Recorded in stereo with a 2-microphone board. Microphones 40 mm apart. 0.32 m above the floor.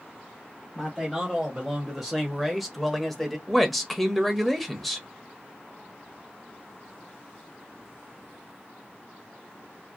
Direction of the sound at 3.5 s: 5° left (ahead or behind).